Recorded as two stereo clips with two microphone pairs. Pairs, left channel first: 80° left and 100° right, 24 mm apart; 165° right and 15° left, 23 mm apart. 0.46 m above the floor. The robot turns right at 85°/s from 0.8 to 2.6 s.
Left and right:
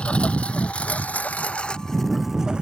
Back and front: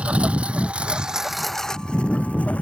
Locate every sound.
0.0 s a lawn mower: 45° left; by 2.6 s 150° right